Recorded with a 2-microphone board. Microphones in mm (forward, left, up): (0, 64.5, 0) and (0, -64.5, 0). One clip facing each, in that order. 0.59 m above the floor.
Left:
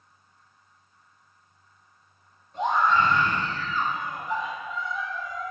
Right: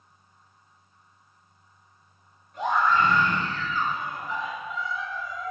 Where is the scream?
30° left (ahead or behind), 3 m; by 5.5 s 60° left (ahead or behind), 4 m.